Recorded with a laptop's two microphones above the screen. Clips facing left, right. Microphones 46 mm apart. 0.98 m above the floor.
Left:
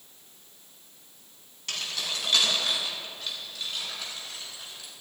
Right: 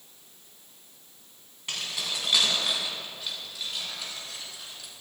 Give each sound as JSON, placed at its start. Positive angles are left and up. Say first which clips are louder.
{"t": 1.7, "sound": "keys jangling", "louder": "even", "side_deg": -15, "distance_m": 7.0}